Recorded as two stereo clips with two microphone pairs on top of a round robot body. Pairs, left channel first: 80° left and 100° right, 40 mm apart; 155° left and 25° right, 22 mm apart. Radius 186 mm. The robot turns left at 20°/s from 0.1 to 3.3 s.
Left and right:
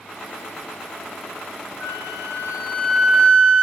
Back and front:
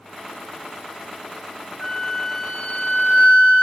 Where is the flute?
165° left, 3 m; by 3.6 s 135° left, 3 m.